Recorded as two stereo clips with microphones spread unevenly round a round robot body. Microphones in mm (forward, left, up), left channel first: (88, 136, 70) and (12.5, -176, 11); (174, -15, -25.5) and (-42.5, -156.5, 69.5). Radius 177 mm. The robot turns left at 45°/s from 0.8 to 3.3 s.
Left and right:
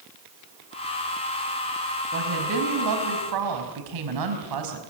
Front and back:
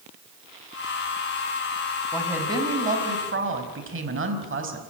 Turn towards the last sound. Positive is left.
turn(degrees=-105)